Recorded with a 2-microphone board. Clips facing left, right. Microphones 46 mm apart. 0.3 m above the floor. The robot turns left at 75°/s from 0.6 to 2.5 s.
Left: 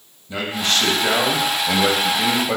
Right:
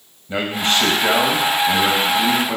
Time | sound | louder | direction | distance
0.3 | a man speaking | right 2 dB | 135° right | 1.6 m